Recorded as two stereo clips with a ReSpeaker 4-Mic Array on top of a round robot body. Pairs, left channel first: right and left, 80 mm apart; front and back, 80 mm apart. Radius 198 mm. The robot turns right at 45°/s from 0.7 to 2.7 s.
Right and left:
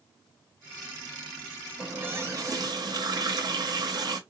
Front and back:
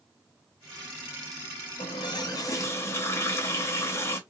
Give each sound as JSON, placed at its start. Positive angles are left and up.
{"t": 1.8, "sound": "a running tap", "azimuth_deg": 15, "distance_m": 1.1}